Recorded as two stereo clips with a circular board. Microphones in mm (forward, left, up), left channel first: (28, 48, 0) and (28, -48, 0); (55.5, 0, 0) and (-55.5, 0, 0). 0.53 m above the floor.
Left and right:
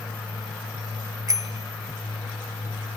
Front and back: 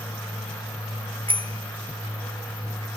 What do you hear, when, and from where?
1.3 s a bicycle bell: 145° right; by 2.9 s 140° right